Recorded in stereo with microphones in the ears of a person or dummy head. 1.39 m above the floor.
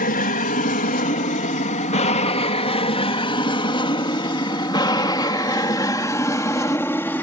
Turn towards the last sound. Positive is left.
turn(degrees=5)  # may be behind; listen again after turning